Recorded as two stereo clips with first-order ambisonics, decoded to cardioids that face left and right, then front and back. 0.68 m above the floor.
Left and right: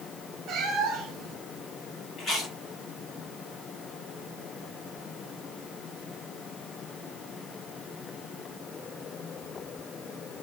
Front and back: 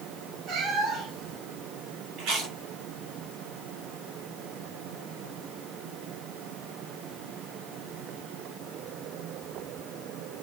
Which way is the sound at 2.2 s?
155° left.